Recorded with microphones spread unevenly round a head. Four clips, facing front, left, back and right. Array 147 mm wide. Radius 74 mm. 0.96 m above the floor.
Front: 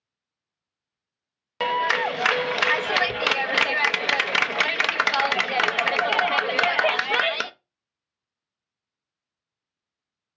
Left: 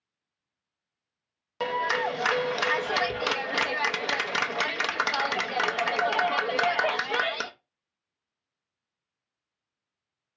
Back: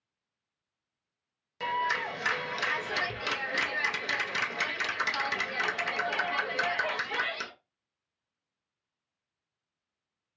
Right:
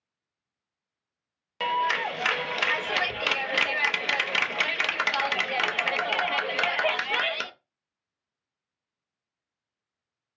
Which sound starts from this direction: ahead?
A clap, at 1.6 s.